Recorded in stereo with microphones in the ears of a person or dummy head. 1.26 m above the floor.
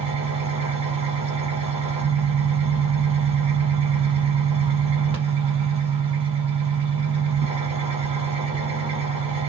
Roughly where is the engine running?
Right.